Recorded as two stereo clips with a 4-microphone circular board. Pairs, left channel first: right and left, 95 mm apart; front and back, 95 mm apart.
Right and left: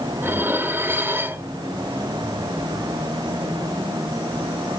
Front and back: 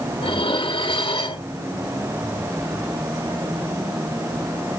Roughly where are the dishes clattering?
Ahead.